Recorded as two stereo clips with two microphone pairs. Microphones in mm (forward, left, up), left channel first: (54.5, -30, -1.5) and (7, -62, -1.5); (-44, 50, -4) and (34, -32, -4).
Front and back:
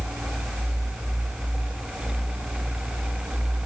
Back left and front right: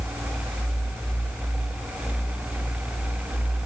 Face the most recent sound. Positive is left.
No sound to turn to.